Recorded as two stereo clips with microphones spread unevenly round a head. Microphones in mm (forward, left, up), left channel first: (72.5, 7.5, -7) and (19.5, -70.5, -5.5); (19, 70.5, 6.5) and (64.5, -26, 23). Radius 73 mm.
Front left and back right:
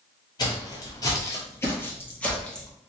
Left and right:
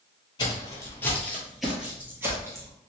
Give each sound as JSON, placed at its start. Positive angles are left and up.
{"t": 0.4, "sound": "footsteps", "azimuth_deg": 75, "distance_m": 1.4}